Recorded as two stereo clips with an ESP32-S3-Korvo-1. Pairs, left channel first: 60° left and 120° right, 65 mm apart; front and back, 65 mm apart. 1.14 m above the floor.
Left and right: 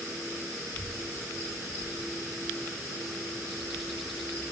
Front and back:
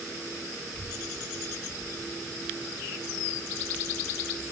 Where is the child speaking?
120° right, 4.5 m; by 4.4 s 95° right, 7 m.